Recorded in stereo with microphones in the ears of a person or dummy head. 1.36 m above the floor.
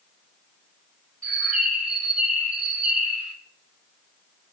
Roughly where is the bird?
Centre.